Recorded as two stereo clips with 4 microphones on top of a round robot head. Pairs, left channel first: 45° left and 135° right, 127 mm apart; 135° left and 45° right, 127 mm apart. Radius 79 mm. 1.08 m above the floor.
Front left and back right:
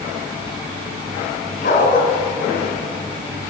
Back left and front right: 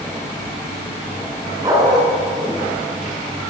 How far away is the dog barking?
About 5 m.